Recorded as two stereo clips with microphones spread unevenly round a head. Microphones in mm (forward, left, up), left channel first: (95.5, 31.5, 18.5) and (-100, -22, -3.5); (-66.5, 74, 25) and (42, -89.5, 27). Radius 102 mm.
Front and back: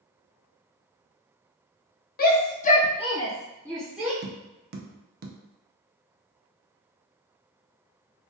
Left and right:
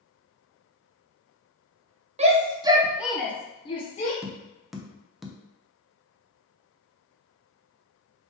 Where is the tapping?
145° right, 0.5 m.